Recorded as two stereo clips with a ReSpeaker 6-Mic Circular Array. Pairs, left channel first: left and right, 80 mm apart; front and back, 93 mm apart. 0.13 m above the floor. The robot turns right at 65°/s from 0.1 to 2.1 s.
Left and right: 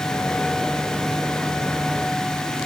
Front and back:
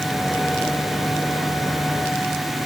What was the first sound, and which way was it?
Only background noise.